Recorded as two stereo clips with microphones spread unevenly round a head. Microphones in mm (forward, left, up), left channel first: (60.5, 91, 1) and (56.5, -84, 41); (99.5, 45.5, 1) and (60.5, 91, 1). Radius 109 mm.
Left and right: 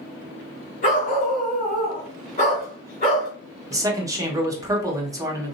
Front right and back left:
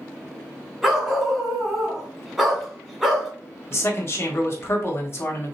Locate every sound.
0.8 s a dog barking: 45° left, 1.8 m
3.7 s a man speaking: 15° right, 1.4 m